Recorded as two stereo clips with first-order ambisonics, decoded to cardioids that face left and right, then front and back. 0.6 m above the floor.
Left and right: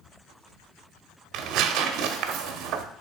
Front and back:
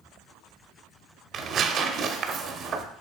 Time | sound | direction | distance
1.3 | tearing paper | 125° right | 0.5 m